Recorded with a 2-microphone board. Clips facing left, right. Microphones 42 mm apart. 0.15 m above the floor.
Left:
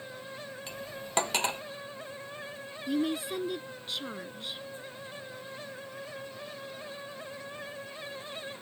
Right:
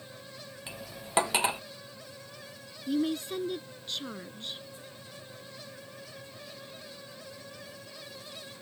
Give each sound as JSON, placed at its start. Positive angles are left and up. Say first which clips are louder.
{"t": 0.7, "sound": "cutlery clinking", "louder": "left 3 dB", "side_deg": -10}
{"t": 2.9, "sound": "a woman speaking", "louder": "right 1 dB", "side_deg": 5}